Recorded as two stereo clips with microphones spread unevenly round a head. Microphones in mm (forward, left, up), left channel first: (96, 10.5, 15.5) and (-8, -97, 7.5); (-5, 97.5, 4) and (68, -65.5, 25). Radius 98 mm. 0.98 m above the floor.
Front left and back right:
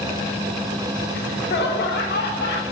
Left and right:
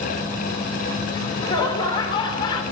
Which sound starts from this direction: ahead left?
Laughter, at 1.1 s.